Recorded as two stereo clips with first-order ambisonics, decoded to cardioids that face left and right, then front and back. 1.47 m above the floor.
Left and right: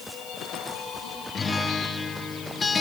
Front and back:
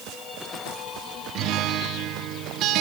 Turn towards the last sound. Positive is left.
turn(degrees=160)